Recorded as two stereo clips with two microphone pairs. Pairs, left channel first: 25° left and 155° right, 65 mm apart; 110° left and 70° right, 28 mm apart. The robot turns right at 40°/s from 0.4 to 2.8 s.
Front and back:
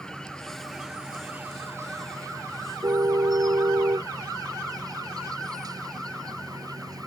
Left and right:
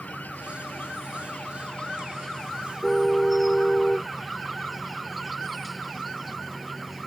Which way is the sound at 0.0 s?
105° left.